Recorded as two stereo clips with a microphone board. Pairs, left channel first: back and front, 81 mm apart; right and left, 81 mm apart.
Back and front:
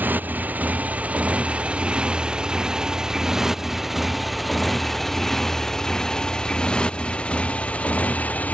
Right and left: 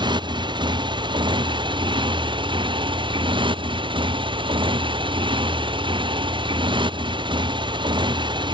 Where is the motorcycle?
65° left; by 8.6 s 110° left.